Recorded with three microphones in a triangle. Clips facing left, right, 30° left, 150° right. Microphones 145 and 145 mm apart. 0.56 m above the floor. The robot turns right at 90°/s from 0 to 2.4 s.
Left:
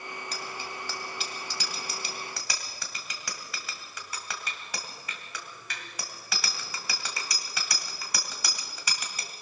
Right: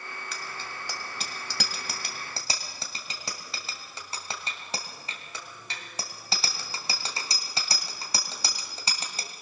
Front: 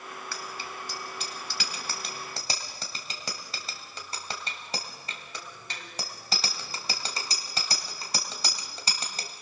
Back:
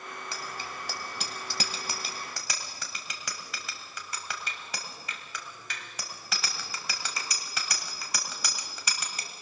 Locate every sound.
0.3 s a bicycle bell: 140° left, 2 m; by 9.3 s 30° right, 2 m